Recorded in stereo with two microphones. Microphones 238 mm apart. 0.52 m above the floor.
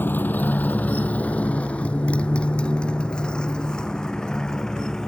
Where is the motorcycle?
10° left (ahead or behind); by 5.1 s centre (ahead or behind).